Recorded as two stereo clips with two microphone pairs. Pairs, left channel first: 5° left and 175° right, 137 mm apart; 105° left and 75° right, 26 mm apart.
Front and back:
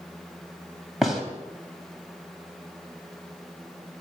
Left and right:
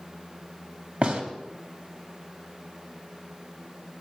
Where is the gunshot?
90° right, 3 m.